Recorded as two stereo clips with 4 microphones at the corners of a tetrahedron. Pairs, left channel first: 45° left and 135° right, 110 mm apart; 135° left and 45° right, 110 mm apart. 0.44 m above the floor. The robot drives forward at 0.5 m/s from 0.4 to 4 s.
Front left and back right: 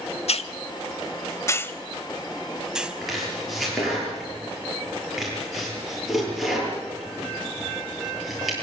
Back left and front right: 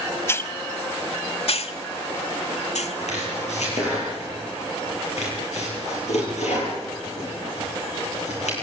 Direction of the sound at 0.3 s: 70° left.